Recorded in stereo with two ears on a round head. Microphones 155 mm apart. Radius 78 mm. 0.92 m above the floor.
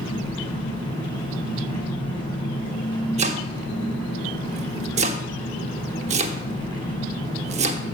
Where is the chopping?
40° right (ahead or behind), 1.0 m.